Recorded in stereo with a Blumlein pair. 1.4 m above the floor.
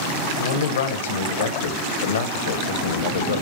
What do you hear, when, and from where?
0.4 s a man speaking: 60° left, 1.0 m